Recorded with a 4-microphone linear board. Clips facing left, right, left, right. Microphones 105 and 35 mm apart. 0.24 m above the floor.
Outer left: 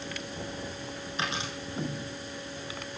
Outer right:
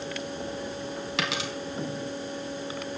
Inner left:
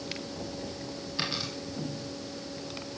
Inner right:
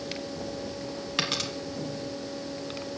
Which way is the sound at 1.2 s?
80° right.